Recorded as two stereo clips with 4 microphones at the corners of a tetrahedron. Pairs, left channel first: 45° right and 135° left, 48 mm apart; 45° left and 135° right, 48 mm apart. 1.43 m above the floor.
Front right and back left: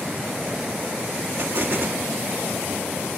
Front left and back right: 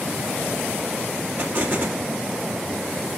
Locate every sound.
1.4 s an explosion: 175° right, 3 m